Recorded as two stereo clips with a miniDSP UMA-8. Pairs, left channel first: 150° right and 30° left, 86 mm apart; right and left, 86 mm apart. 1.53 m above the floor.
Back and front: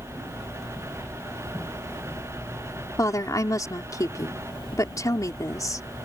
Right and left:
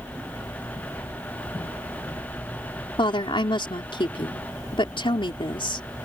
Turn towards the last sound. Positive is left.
turn(degrees=-100)